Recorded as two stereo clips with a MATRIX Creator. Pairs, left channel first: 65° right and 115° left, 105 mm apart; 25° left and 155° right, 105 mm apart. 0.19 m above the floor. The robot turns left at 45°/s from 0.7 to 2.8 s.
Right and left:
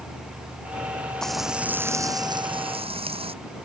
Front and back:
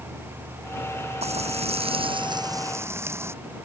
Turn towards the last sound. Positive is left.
turn(degrees=135)